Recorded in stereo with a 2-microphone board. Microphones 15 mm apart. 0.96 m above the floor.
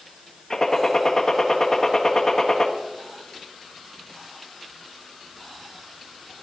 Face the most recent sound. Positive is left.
turn(degrees=30)  # may be behind; listen again after turning